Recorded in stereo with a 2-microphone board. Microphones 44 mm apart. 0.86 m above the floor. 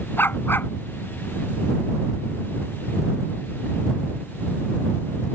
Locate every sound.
0.2 s a dog barking: 55° left (ahead or behind)